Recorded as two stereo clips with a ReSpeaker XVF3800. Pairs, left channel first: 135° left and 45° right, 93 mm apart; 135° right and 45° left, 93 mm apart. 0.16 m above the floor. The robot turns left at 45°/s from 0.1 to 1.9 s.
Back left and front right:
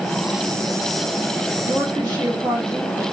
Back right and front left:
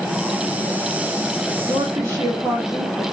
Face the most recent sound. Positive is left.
turn(degrees=-5)